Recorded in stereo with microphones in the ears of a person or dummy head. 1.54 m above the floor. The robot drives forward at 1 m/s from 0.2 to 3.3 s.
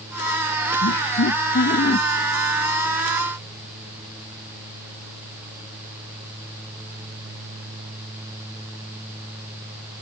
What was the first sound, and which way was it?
Laughter, 55° left (ahead or behind).